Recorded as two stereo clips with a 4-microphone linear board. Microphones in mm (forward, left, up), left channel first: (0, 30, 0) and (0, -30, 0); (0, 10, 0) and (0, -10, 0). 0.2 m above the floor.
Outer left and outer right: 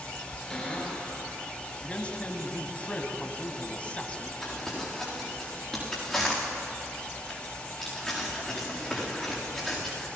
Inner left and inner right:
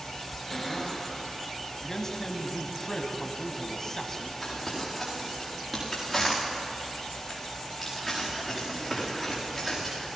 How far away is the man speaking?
About 1.1 m.